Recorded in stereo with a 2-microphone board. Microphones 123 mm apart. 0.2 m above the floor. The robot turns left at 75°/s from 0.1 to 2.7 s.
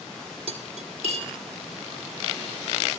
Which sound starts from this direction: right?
Cutlery clinking, at 0.5 s.